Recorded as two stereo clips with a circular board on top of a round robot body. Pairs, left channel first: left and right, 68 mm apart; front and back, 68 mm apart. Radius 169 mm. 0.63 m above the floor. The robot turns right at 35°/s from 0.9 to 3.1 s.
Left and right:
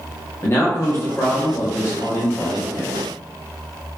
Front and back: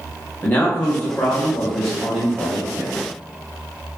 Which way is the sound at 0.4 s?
55° left.